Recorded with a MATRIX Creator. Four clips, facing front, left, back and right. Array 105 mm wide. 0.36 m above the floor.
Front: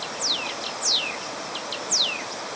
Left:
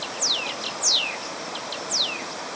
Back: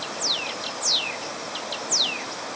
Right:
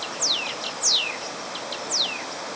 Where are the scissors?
I don't hear scissors.